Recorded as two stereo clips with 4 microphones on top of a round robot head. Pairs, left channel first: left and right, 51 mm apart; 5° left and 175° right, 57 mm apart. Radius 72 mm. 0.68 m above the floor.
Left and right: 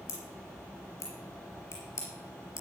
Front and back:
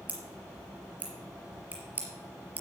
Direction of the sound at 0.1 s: 125° left.